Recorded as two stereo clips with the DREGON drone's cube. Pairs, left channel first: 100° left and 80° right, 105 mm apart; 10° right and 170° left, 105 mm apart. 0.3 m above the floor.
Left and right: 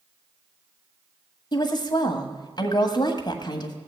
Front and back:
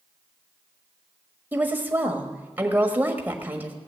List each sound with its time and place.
1.5 s a woman speaking: 105° left, 1.4 m